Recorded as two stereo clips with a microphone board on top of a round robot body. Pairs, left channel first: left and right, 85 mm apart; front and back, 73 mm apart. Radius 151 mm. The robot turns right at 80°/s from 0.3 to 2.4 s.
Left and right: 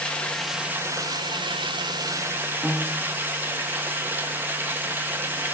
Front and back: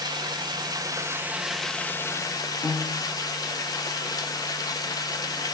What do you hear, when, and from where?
0.0 s running water: 165° left, 1.5 m; by 5.5 s 25° right, 1.5 m
2.6 s a piano: 20° right, 0.5 m